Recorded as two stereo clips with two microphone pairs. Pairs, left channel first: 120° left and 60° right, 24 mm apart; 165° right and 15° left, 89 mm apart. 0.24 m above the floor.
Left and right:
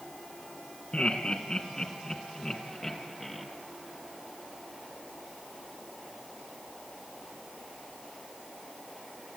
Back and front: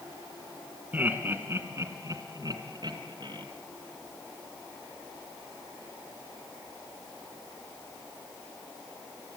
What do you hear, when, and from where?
0.9 s laughter: 80° left, 3 m; by 3.5 s 35° left, 3.5 m